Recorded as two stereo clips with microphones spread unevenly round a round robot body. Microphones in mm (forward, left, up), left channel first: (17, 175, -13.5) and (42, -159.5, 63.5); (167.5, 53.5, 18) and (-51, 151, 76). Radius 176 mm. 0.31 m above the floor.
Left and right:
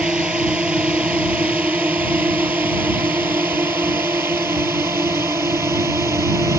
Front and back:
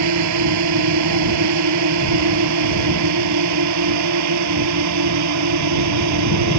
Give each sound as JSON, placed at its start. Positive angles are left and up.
{"t": 0.0, "sound": "a drone", "azimuth_deg": -175}